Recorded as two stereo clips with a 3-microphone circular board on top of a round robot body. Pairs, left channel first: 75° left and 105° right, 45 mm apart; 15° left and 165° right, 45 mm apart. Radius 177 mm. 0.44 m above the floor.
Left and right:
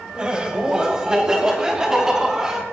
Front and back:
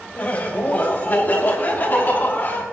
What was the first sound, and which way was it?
Laughter, 35° right.